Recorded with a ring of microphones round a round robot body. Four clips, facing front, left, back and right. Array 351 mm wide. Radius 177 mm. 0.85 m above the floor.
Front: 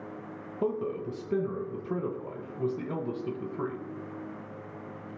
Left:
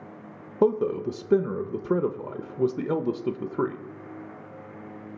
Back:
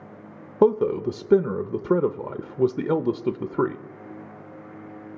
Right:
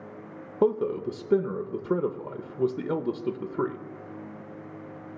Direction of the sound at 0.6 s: 175° left.